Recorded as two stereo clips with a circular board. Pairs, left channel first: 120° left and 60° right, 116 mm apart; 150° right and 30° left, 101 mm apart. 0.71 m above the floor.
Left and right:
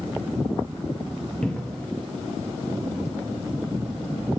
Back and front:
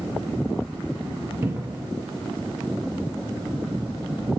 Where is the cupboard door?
45° left, 0.7 m.